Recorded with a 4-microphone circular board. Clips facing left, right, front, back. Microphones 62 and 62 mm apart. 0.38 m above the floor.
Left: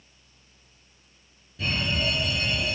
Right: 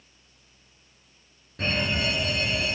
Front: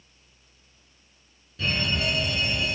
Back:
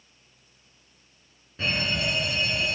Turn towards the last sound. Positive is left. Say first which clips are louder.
# right 1 dB, even
turn(degrees=-120)